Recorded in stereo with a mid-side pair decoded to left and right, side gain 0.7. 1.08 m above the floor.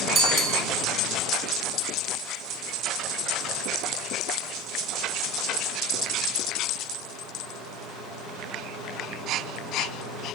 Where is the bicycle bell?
35° right, 4.5 m.